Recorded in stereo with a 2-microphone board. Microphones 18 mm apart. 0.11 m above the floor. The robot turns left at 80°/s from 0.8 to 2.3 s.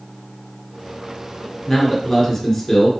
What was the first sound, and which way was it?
A man speaking, 20° left (ahead or behind).